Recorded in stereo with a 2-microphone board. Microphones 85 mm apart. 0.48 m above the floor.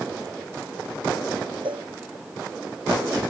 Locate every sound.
1.6 s a cowbell: 75° right (ahead or behind)